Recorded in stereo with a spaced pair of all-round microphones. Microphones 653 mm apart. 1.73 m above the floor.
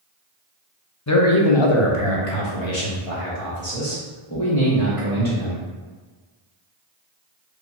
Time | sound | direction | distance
1.1 | a man speaking | 25° left (ahead or behind) | 0.6 m